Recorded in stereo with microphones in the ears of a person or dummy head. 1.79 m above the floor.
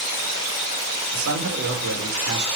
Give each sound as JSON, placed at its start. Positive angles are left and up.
{"t": 1.1, "sound": "a man speaking", "side_deg": -80, "distance_m": 6.5}